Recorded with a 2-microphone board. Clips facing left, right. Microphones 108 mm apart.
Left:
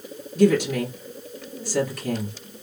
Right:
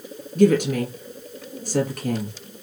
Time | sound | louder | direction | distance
0.3 | a woman speaking | right 1 dB | 55° right (ahead or behind) | 2 m